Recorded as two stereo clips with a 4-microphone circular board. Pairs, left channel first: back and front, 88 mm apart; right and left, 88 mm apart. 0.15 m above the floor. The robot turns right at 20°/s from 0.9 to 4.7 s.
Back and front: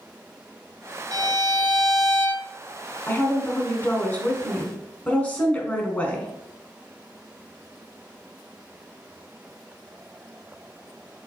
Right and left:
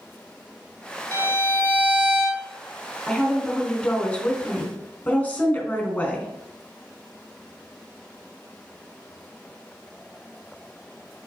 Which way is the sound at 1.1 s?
30° right.